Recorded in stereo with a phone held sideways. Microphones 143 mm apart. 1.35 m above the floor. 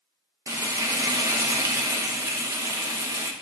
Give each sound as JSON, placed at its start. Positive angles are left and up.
{"t": 0.5, "sound": "frying", "side_deg": -25, "distance_m": 0.7}